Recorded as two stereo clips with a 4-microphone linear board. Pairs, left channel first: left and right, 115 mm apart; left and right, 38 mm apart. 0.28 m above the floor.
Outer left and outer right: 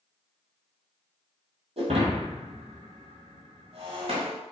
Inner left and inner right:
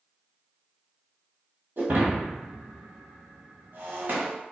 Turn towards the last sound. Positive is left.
turn(degrees=-65)  # may be behind; listen again after turning